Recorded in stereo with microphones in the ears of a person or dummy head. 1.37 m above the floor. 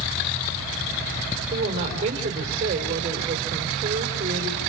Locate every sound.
1.5 s a woman speaking: 35° right (ahead or behind), 4 m